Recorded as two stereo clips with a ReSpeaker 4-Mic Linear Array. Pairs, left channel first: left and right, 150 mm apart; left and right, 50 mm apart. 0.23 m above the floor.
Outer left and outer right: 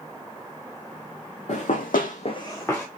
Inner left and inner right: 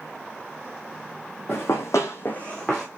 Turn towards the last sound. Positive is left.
turn(degrees=10)  # may be behind; listen again after turning